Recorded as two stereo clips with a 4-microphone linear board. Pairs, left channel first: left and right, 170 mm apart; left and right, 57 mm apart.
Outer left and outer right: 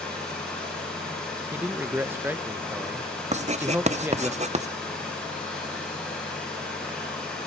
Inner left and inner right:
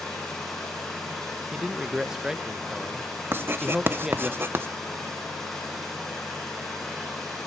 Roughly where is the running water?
Centre.